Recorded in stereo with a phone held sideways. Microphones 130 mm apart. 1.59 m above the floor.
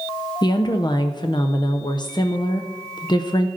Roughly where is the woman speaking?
Left.